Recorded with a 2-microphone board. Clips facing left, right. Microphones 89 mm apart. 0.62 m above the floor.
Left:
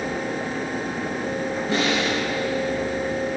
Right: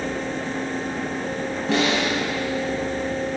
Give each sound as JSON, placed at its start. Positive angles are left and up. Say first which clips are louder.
{"t": 1.7, "sound": "a snare drum", "louder": "right 2 dB", "side_deg": -75, "distance_m": 2.5}